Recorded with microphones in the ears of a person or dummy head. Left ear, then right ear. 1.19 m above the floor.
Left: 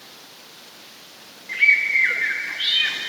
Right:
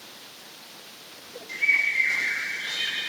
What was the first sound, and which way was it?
A bird, 55° left (ahead or behind).